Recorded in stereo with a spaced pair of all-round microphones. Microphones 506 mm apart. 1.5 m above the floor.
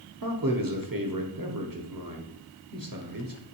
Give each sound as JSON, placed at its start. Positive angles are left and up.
{"t": 0.2, "sound": "a man speaking", "side_deg": -40, "distance_m": 0.8}